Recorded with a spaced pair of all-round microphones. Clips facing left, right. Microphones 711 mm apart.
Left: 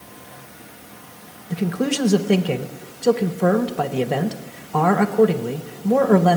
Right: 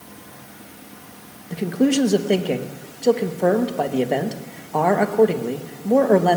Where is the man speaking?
40° left (ahead or behind), 1.5 m.